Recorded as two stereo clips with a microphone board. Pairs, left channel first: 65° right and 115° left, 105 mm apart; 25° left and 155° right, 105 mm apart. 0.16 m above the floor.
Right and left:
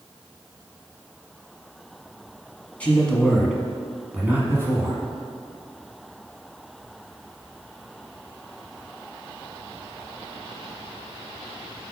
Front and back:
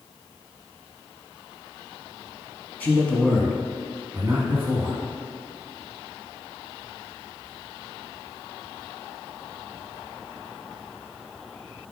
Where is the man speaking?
15° right, 1.1 m; by 5.0 s 155° left, 1.3 m.